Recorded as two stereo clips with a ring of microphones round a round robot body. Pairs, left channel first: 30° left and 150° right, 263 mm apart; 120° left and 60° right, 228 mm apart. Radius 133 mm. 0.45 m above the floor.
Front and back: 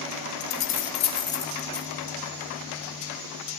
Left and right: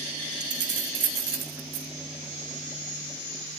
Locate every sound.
0.4 s keys jangling: 20° right, 1.5 m; by 1.9 s 60° right, 1.3 m